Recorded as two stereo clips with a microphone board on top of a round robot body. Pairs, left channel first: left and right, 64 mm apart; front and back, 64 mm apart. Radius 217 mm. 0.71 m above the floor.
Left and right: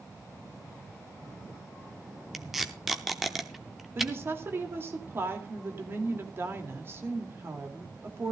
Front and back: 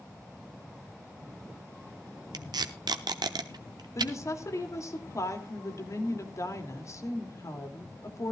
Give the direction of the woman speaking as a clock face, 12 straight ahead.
1 o'clock.